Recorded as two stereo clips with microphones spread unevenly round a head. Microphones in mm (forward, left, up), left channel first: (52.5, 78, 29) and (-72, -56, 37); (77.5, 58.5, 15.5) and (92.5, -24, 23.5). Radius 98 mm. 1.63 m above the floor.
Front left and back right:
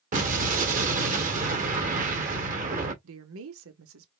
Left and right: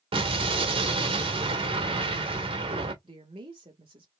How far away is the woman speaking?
About 0.9 m.